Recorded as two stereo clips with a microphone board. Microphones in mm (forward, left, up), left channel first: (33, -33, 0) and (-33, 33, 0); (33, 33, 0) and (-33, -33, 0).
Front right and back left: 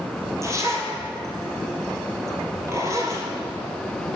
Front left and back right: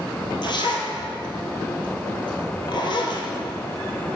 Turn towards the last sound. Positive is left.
turn(degrees=75)